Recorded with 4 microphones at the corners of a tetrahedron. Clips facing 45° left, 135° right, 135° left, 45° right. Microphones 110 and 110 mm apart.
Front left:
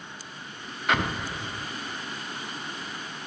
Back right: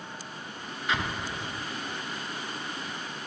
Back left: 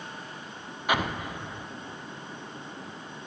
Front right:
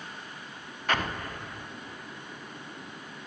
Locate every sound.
0.9 s an explosion: 60° left, 0.6 m